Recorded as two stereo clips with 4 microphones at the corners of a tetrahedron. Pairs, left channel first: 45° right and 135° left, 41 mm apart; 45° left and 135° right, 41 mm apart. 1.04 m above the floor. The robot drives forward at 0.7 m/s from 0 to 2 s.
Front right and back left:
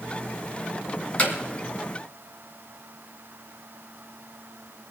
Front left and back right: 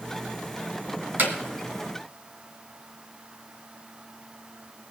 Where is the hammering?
100° right, 2.5 m.